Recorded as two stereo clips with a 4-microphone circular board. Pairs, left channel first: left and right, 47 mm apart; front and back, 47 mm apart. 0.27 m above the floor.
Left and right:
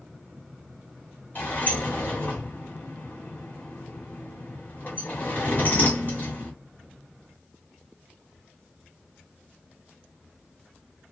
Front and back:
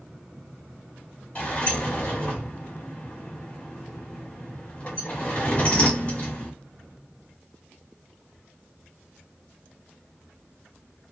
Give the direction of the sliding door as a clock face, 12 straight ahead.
10 o'clock.